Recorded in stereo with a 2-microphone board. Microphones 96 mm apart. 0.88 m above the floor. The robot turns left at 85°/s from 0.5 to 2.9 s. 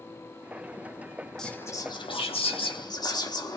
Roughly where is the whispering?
Behind.